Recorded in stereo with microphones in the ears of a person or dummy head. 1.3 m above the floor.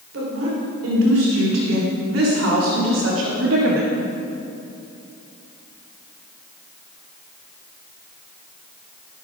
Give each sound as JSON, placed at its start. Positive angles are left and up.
{"t": 0.1, "sound": "a woman speaking", "side_deg": -85, "distance_m": 4.5}